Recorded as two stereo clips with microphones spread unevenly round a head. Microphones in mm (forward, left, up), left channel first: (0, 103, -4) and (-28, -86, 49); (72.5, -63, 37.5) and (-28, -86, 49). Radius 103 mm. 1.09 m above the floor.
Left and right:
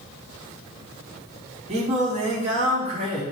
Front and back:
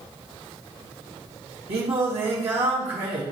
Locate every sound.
1.7 s singing: 155° right, 1.8 m